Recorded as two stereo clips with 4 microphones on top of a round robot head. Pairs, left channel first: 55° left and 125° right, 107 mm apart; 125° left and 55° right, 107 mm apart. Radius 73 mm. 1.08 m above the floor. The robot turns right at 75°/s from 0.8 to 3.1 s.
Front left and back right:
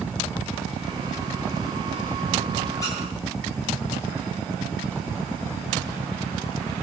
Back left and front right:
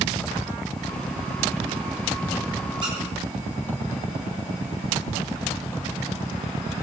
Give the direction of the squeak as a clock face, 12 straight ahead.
12 o'clock.